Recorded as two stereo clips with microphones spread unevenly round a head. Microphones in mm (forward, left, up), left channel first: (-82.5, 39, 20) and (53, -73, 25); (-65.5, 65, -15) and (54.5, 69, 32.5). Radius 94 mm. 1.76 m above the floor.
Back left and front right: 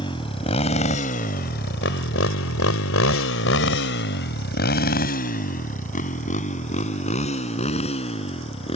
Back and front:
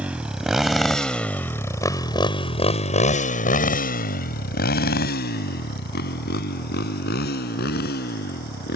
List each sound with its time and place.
0.0 s a motorcycle: 70° left; by 8.8 s 160° right